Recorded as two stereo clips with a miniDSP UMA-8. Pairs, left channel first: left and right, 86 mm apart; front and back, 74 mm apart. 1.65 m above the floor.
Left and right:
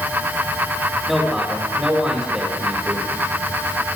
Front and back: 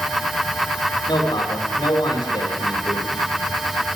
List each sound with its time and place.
1.1 s a man speaking: straight ahead, 8.5 m; by 3.1 s 10° right, 8 m